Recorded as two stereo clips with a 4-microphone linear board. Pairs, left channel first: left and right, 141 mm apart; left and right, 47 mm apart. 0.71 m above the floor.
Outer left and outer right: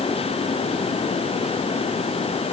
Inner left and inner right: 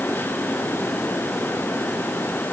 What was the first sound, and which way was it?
Only background noise.